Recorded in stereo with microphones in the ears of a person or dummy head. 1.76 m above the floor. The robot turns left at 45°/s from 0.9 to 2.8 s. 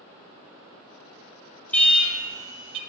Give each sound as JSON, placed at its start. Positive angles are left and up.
{"t": 1.7, "sound": "an alarm", "azimuth_deg": 15, "distance_m": 5.5}